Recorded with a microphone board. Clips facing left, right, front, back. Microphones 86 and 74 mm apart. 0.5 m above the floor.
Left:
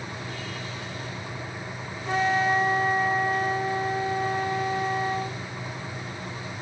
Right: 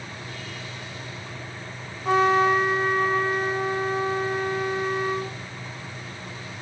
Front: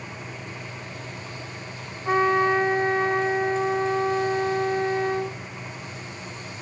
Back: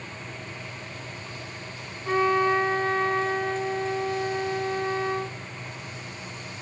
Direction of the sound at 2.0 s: 65° right.